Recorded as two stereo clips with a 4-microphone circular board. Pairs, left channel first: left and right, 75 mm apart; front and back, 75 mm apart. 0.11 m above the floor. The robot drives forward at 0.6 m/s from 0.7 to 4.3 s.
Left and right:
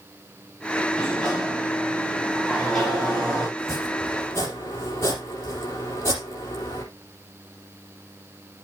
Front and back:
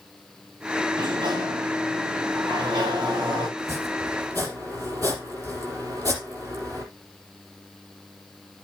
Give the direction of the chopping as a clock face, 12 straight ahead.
7 o'clock.